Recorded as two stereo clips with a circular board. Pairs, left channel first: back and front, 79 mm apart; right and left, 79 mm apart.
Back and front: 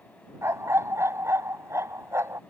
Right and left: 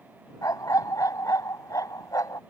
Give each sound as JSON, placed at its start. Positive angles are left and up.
{"t": 0.4, "sound": "a dog barking", "azimuth_deg": -50}